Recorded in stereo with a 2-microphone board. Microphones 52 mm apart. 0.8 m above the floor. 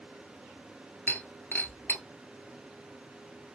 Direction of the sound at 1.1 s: 40° left (ahead or behind).